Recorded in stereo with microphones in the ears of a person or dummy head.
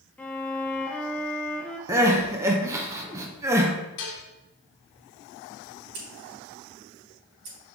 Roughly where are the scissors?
Right.